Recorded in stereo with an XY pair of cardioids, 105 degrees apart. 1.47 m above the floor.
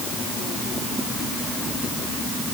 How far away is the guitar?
No guitar in this recording.